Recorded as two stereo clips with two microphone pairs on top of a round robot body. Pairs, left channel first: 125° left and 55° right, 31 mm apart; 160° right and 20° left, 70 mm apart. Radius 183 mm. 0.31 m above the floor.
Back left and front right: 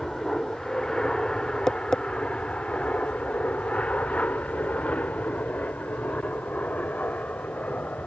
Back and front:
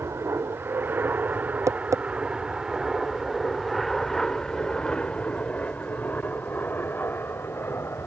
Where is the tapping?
60° left.